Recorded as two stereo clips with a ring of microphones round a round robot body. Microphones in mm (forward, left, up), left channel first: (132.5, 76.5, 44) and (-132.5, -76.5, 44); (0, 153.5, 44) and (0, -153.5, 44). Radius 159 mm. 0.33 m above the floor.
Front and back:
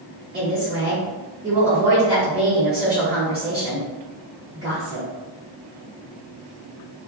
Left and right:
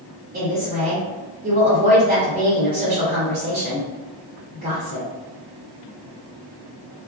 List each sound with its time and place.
0.3 s a woman speaking: 125° right, 1.3 m